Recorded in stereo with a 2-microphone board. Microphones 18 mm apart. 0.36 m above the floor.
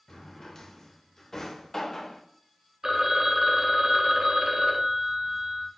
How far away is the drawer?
About 0.5 m.